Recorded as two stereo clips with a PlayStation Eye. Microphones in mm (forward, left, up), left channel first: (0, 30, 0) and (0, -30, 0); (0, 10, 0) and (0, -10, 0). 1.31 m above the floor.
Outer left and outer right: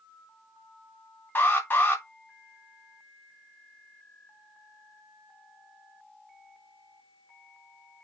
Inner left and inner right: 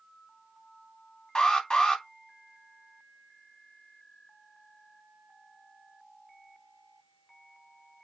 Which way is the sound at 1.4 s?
40° left (ahead or behind).